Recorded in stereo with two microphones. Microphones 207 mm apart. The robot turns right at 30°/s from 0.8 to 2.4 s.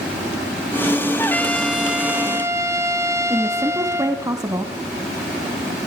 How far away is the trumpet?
About 2.0 m.